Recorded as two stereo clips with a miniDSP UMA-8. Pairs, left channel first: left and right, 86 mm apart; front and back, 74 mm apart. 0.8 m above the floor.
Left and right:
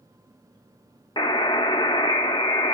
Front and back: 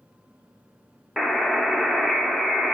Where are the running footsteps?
I don't hear running footsteps.